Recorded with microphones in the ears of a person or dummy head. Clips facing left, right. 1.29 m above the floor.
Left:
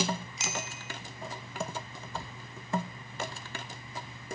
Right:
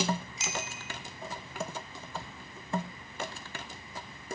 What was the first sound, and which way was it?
A bicycle bell, 50° left (ahead or behind).